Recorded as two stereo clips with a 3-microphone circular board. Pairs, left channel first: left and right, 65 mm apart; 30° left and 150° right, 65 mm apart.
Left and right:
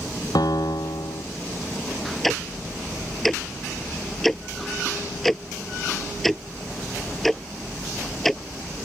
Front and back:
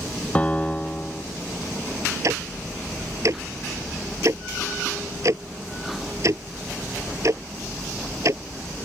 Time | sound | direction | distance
0.3 | a piano | 100° left | ?
2.2 | ticking | straight behind | ?